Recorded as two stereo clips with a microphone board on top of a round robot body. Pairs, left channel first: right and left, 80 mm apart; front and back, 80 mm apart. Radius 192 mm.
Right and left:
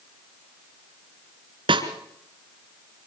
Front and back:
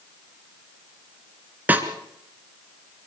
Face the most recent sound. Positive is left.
turn(degrees=110)